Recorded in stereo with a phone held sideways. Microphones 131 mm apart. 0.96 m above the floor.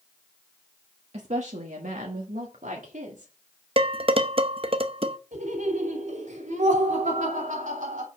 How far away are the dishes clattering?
About 0.6 m.